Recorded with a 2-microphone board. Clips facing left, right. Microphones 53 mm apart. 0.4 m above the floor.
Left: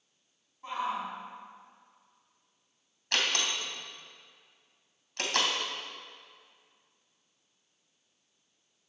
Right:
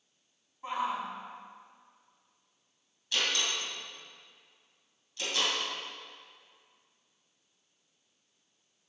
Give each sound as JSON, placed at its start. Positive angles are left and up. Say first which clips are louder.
{"t": 0.6, "sound": "a shout", "louder": "even", "side_deg": -15, "distance_m": 3.5}
{"t": 3.1, "sound": "a door slam", "louder": "left 1 dB", "side_deg": 65, "distance_m": 2.5}